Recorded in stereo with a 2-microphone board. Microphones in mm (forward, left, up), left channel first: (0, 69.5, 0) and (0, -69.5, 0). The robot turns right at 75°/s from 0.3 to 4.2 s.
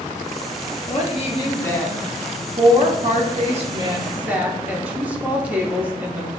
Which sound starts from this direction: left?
A woman speaking, at 0.9 s.